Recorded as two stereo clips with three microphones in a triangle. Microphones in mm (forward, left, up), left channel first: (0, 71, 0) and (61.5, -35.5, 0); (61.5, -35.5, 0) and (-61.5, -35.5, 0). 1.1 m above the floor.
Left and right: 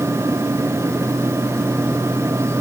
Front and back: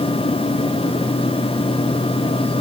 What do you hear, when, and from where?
Only background noise.